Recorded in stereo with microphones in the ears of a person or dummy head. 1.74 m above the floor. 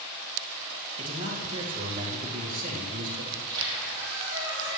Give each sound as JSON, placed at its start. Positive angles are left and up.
{"t": 1.0, "sound": "a man speaking", "side_deg": -40, "distance_m": 2.5}
{"t": 3.3, "sound": "a squeak", "side_deg": -20, "distance_m": 3.5}